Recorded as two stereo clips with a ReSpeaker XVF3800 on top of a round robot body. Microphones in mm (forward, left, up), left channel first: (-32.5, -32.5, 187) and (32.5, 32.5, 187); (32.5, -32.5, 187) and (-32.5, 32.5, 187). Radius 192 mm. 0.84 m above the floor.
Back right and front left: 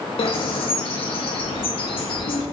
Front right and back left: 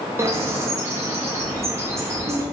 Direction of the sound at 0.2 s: 165° right.